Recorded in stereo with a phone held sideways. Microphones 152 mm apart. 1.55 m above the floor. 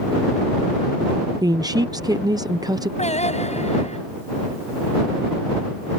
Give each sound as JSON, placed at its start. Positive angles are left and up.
{"t": 1.4, "sound": "a woman speaking", "side_deg": -25}
{"t": 3.0, "sound": "singing", "side_deg": 45}